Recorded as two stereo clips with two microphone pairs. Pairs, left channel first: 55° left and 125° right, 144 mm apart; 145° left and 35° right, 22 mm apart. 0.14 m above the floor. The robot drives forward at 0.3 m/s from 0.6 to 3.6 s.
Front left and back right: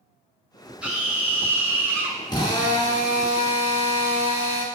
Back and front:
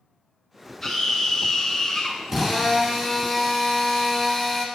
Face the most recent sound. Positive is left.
turn(degrees=65)